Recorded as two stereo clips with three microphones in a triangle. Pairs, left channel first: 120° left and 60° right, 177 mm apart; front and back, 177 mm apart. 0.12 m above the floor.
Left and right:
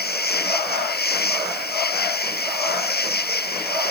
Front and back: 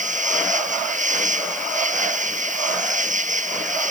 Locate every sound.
0.0 s an insect: 140° left